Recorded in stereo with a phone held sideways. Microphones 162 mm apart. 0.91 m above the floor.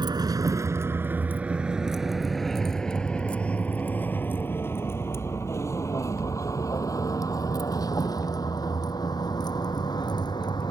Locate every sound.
0.0 s a vehicle: 30° right (ahead or behind); by 10.7 s 30° left (ahead or behind)